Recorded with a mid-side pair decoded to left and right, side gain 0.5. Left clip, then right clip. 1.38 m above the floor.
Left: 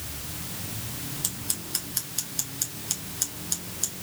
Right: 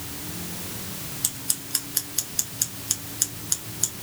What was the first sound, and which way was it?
Scissors, 15° right.